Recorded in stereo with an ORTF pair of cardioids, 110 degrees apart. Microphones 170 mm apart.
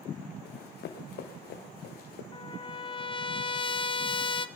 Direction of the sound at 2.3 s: 30° left.